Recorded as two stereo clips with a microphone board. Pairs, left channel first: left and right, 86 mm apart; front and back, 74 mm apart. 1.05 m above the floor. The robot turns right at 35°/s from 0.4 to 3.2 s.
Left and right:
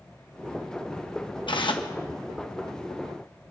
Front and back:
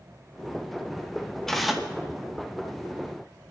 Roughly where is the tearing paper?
Left.